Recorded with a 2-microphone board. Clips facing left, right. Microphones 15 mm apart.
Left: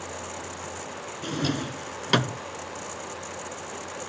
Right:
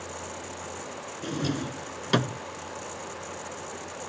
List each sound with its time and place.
1.2 s a drawer: 20° left (ahead or behind)